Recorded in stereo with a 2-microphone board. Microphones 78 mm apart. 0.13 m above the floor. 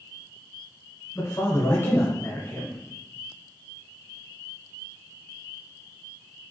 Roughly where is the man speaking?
Left.